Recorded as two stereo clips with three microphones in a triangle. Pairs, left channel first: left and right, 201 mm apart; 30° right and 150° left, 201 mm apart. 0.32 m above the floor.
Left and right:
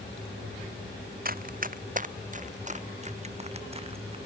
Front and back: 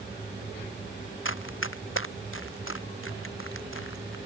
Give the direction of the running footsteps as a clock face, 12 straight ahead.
1 o'clock.